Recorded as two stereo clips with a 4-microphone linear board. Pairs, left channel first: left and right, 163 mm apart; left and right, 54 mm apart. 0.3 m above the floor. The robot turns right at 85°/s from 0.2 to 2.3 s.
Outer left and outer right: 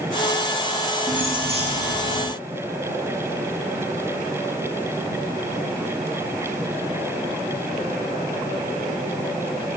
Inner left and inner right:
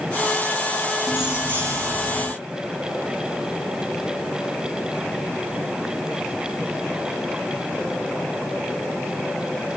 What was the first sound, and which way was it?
Keys jangling, straight behind.